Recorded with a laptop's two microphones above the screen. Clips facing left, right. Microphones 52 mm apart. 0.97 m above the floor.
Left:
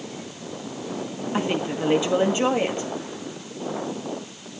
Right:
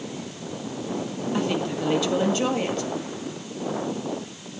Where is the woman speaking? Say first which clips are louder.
Left 1 dB; 25° left (ahead or behind), 1.8 m.